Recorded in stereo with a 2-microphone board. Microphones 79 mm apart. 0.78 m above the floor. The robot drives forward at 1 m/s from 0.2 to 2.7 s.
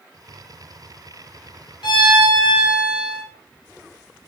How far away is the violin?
About 2.0 m.